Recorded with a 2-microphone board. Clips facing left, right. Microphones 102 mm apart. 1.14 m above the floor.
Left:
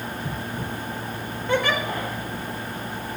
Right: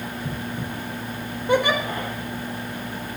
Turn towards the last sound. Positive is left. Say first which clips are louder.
# right 3 dB
turn(degrees=-20)  # may be behind; listen again after turning